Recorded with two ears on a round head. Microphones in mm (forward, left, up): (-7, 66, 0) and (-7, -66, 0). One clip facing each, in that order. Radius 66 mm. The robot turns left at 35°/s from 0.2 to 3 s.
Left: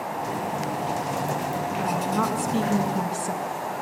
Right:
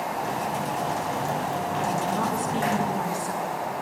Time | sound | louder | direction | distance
1.8 | a woman speaking | left 2 dB | 75° left | 5 m